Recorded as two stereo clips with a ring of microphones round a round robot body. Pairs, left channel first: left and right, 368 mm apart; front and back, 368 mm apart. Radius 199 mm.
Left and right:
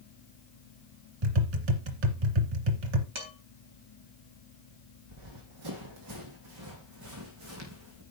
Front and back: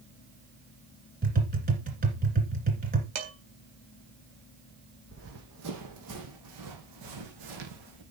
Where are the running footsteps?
120° right, 2.5 m; by 8.0 s 145° right, 3.5 m.